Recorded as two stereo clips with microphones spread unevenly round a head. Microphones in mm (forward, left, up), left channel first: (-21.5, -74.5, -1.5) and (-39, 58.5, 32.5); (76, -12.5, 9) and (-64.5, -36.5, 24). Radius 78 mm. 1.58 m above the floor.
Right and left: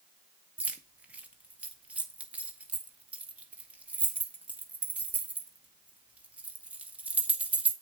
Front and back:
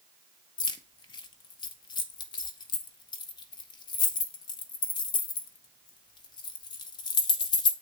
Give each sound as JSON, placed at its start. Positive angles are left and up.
{"t": 0.6, "sound": "keys jangling", "azimuth_deg": 55, "distance_m": 0.7}